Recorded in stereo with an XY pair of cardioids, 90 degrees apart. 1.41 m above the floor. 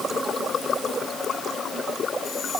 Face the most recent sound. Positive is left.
No sound to turn to.